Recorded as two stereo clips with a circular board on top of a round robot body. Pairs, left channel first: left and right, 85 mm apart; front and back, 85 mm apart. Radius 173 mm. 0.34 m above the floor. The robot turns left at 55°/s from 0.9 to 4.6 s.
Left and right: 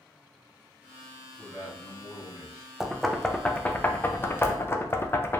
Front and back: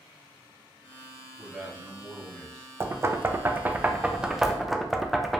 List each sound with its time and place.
1.4 s a man speaking: 145° left, 1.8 m; by 2.7 s 70° left, 1.8 m
2.8 s knocking: 170° right, 0.5 m; by 5.4 s 90° left, 0.5 m